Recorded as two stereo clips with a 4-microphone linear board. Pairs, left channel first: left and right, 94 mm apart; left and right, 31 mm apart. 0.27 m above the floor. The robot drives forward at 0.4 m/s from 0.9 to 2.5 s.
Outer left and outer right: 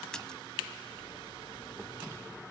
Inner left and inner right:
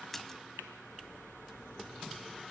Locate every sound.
0.1 s a splash: 10° left (ahead or behind), 0.8 m